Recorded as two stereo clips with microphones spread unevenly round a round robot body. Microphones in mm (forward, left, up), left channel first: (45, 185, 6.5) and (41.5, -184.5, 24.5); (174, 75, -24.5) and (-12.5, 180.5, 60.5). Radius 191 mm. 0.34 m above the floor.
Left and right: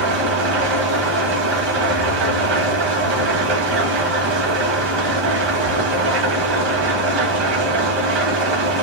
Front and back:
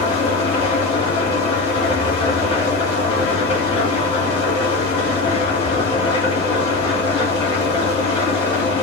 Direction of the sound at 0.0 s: 95° right.